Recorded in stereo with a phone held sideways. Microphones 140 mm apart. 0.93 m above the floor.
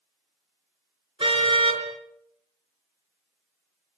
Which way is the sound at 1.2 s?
40° right (ahead or behind).